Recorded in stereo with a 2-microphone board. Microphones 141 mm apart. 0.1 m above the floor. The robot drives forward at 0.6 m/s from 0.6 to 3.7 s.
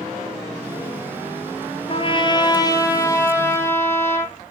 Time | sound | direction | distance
1.9 | a trumpet | 40° left (ahead or behind) | 0.7 m